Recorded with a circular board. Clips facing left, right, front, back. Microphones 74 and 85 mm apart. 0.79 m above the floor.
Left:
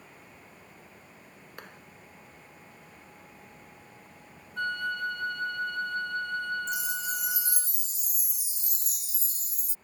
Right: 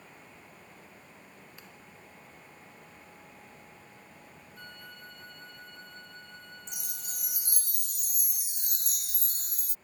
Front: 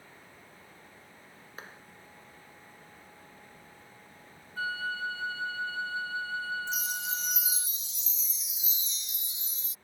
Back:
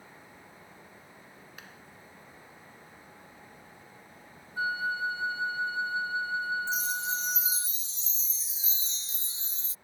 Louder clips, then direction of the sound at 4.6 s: Left 19 dB, back 3 dB; 110° left.